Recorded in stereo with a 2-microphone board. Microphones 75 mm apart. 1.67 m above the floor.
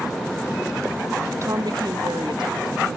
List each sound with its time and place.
1.4 s a woman speaking: 40° right (ahead or behind), 0.5 m; by 3.0 s 90° right, 2.5 m